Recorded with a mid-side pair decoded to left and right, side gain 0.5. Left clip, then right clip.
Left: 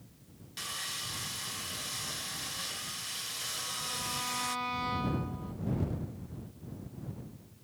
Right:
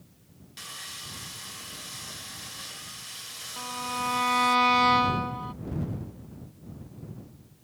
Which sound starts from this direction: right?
A violin, at 3.6 s.